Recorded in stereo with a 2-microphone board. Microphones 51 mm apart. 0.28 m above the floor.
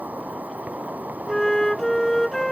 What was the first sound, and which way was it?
An insect, 35° right (ahead or behind).